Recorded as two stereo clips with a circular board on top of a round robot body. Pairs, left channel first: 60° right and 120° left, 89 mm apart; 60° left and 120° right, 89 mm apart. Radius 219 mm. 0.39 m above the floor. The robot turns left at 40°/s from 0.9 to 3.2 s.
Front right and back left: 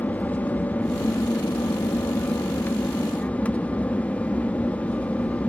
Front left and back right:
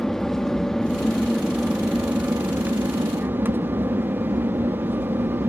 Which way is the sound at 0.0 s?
15° right.